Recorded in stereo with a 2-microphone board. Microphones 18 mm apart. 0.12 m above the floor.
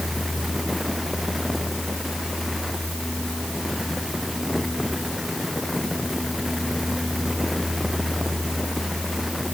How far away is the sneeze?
I don't hear a sneeze.